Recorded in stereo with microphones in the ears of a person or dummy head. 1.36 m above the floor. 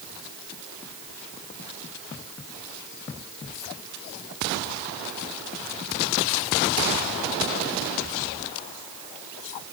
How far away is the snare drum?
No snare drum in this recording.